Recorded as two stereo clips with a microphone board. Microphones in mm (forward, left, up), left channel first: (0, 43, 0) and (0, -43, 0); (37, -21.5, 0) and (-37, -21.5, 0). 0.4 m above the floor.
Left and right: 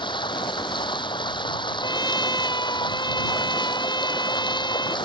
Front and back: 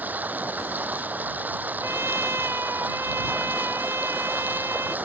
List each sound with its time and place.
0.0 s running water: 115° left
1.8 s a trumpet: 125° left